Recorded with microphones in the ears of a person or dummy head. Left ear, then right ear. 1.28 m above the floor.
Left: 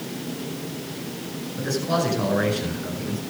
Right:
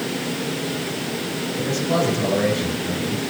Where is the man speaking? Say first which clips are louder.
Right 2 dB; 90° left, 7 m.